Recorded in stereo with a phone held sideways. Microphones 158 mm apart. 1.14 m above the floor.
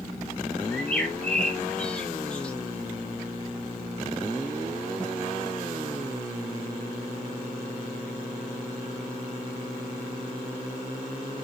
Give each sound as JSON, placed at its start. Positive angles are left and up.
{"t": 0.7, "sound": "a bird", "side_deg": 5, "distance_m": 1.0}